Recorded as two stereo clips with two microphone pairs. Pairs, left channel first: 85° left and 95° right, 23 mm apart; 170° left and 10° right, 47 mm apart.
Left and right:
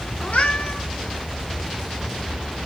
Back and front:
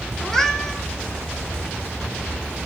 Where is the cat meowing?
90° left, 1.1 m.